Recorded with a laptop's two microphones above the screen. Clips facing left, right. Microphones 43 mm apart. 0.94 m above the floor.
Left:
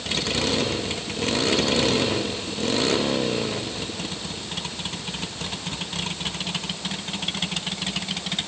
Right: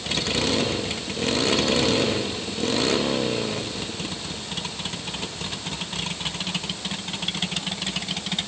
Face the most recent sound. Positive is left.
No sound to turn to.